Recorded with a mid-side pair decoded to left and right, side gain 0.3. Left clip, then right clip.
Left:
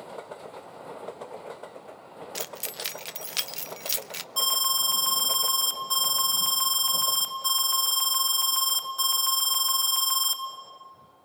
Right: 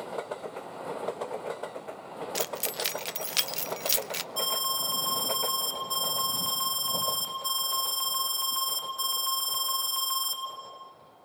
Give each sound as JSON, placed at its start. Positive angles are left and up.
{"t": 2.4, "sound": "keys jangling", "azimuth_deg": -20, "distance_m": 0.5}
{"t": 4.4, "sound": "an alarm", "azimuth_deg": 65, "distance_m": 4.5}